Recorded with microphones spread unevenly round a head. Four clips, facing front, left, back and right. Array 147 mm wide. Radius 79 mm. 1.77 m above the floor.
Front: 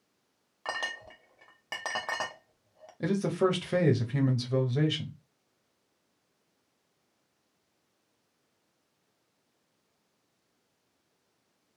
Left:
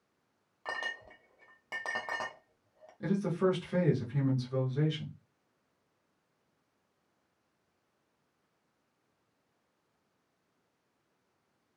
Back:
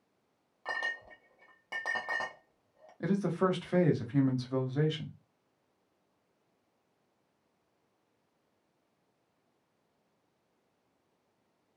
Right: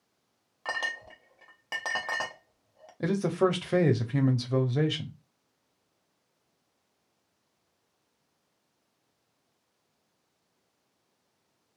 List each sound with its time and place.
0.7 s a clink: 60° right, 0.7 m
3.0 s a man speaking: 75° right, 0.9 m